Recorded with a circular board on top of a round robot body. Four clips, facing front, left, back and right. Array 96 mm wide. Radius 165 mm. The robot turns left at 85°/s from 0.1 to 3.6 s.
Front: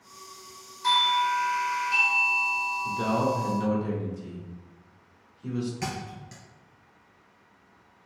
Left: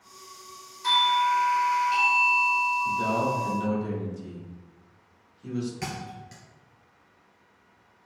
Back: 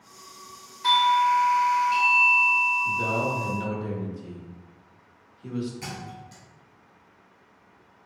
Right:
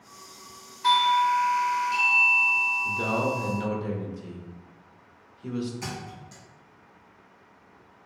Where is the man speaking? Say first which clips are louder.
Left 2 dB, front 1 dB; 45° right, 1.3 m; by 5.7 s 105° right, 1.3 m.